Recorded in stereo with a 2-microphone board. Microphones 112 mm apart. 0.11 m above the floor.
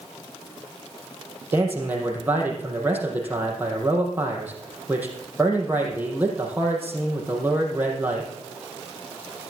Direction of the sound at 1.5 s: 15° right (ahead or behind).